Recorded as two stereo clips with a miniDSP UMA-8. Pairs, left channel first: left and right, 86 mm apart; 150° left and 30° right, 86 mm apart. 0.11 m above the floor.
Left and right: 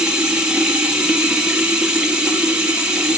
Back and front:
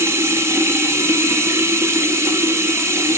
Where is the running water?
20° right, 1.5 m.